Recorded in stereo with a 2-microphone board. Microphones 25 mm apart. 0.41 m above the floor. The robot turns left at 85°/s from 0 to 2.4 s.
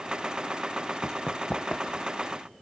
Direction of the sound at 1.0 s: 15° left (ahead or behind).